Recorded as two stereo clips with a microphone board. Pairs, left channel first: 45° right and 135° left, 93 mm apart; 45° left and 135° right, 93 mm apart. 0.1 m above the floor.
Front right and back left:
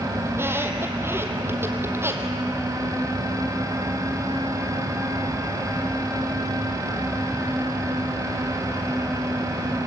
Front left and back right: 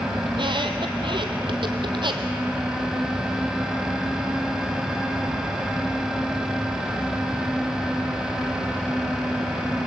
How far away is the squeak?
About 2 m.